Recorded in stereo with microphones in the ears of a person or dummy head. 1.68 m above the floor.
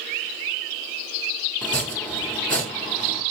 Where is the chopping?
5° left (ahead or behind), 0.6 m.